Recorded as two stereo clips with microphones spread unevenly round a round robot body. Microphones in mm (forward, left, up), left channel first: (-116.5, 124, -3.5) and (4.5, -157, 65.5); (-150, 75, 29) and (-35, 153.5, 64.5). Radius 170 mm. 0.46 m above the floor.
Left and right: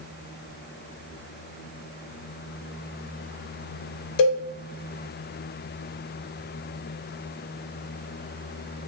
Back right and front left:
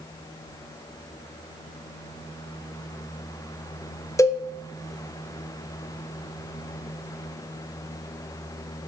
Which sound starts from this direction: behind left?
A cowbell, at 4.2 s.